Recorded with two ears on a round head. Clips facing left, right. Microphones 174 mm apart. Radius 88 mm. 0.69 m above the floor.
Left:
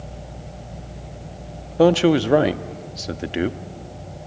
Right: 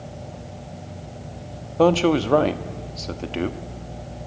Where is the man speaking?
15° left (ahead or behind), 0.8 m.